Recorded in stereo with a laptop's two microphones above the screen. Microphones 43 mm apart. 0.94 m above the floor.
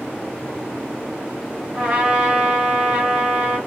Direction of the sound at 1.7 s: 25° right (ahead or behind).